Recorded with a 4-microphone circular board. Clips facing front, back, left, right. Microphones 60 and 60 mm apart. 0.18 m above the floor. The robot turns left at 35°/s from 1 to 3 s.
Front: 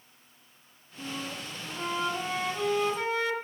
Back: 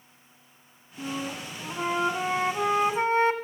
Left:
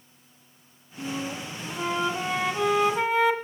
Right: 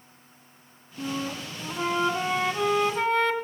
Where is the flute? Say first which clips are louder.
Back 4 dB, right 1 dB; 125° right, 1.5 m; by 3.3 s 165° left, 1.5 m.